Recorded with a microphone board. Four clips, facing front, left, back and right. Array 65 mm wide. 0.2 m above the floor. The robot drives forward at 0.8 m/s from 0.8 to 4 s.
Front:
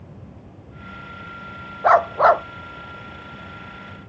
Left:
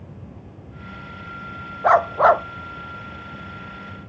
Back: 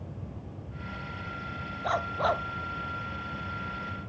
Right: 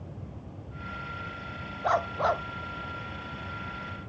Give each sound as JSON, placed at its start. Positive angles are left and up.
{"t": 1.8, "sound": "a dog barking", "azimuth_deg": 40}